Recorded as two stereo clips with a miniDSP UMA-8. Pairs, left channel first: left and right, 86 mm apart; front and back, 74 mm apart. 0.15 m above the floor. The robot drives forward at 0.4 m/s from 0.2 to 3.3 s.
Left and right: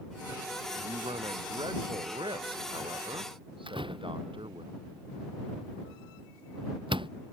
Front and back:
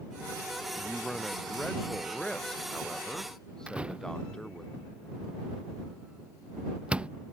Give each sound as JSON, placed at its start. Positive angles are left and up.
{"t": 0.8, "sound": "a man speaking", "azimuth_deg": -80}
{"t": 3.7, "sound": "a door slam", "azimuth_deg": -105}